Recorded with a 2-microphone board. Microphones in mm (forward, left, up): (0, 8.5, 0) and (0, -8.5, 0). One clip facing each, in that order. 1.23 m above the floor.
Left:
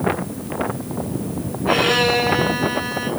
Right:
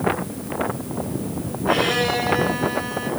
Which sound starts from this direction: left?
A violin, at 1.7 s.